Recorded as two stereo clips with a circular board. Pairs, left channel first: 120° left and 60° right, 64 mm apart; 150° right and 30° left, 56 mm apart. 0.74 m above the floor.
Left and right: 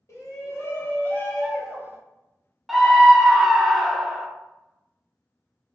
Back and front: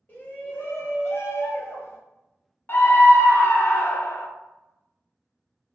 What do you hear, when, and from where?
0.1 s a shout: 155° left, 1.1 m; by 2.0 s 125° right, 0.7 m
2.7 s a scream: 150° right, 0.5 m